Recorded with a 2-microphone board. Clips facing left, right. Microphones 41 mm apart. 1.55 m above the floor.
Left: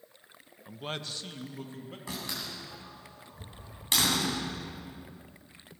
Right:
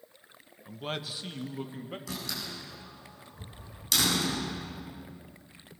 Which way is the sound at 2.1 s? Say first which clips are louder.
Left 3 dB; 30° left (ahead or behind).